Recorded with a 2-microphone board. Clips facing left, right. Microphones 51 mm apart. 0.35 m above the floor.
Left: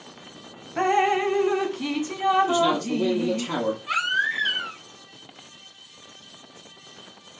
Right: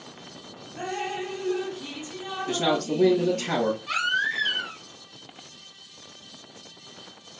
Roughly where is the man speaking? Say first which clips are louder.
Left 3 dB; right.